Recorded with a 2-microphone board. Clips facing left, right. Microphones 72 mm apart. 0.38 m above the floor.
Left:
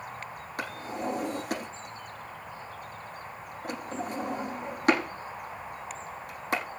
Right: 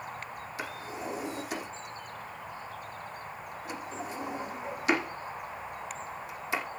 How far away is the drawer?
About 8 m.